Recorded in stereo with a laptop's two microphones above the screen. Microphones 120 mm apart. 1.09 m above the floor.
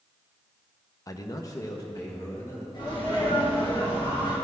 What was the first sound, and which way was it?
A man speaking, 30° left (ahead or behind).